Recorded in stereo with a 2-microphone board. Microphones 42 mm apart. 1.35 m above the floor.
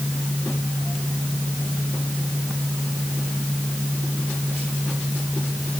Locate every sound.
Only background noise.